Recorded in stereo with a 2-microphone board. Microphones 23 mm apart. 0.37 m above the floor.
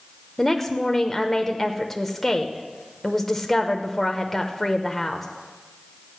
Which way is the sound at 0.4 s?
15° left (ahead or behind).